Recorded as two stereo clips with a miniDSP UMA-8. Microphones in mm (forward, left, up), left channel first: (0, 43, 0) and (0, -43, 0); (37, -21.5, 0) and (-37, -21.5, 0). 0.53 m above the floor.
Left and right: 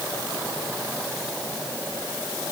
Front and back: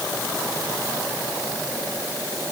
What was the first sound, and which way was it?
Only background noise.